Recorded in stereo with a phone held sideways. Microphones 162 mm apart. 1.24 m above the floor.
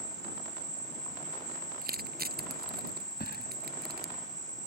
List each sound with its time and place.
0.0 s an insect: 25° right (ahead or behind)
1.8 s crushing: 70° right (ahead or behind)
3.2 s a thud: 80° left